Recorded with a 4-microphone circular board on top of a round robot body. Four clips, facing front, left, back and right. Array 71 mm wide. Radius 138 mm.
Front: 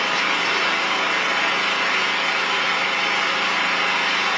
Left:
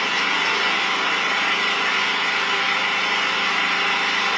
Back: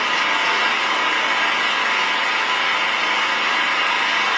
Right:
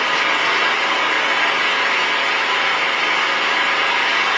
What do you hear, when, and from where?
0.0 s an engine running: 110° right, 1.0 m